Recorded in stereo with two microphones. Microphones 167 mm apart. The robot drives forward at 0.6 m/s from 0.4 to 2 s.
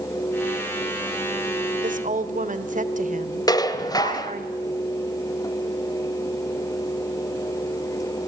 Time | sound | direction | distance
1.8 | a woman speaking | 50° right (ahead or behind) | 1.5 m
3.5 | dishes clattering | 20° left (ahead or behind) | 1.4 m